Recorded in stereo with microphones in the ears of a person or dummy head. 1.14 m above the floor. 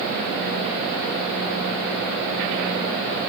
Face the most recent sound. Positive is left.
No sound to turn to.